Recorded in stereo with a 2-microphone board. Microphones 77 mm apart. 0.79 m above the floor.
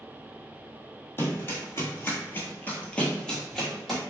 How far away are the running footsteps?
About 1.2 m.